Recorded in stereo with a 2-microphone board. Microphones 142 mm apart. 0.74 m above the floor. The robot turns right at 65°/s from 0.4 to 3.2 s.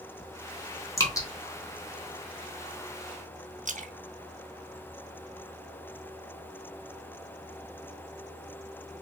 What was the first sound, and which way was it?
Dripping, 20° left (ahead or behind).